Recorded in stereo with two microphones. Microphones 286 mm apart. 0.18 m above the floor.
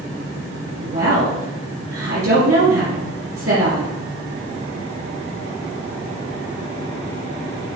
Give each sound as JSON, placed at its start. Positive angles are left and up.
{"t": 0.8, "sound": "a woman speaking", "side_deg": -60, "distance_m": 3.5}